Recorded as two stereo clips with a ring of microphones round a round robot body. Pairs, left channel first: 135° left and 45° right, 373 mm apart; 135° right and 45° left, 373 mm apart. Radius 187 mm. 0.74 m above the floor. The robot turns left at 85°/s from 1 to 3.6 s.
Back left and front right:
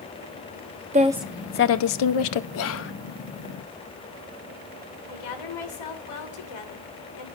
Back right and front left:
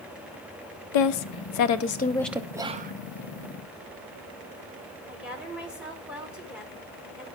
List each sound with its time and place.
0.9 s a woman speaking: 115° right, 0.8 m; by 2.4 s 125° left, 0.8 m
2.5 s whispering: 125° left, 0.6 m; by 2.9 s 95° left, 0.6 m
5.1 s a woman speaking: 130° left, 2.5 m